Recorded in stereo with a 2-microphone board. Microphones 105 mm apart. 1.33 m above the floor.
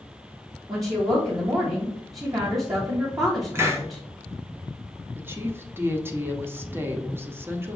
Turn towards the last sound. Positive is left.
turn(degrees=-20)  # may be behind; listen again after turning